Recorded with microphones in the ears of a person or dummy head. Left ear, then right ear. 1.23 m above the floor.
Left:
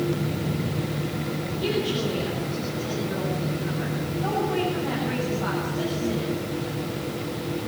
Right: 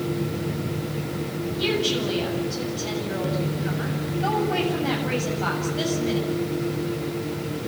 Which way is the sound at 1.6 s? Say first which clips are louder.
Right 3 dB; 70° right (ahead or behind).